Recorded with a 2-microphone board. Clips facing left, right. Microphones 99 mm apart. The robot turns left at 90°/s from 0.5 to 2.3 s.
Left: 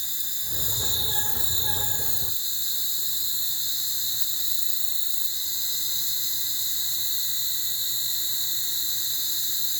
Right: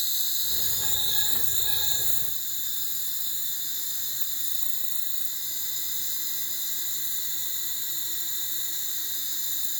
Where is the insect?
100° right, 1.4 m; by 9.8 s 100° left, 1.4 m.